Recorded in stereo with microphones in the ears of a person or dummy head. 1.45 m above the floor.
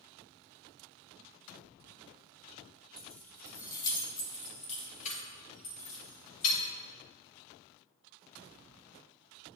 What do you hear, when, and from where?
3.0 s keys jangling: centre (ahead or behind), 1.3 m; by 6.6 s 50° left (ahead or behind), 3 m